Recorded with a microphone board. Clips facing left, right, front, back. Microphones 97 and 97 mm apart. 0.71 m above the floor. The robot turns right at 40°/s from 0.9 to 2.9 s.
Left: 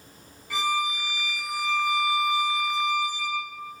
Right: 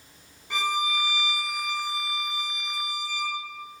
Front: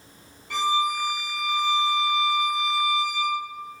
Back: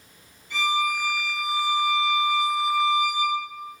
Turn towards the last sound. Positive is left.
turn(degrees=60)